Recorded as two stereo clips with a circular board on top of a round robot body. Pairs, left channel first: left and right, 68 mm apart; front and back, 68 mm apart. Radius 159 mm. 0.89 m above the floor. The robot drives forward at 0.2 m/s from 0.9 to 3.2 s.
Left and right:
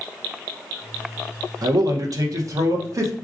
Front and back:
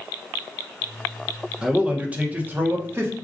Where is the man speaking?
105° right, 0.8 m; by 3.1 s 125° right, 1.0 m.